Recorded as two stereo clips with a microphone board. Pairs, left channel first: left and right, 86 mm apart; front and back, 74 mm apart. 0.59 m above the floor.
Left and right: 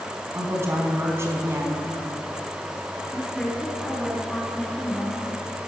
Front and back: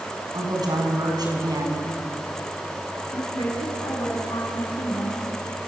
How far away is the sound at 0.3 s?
About 6 m.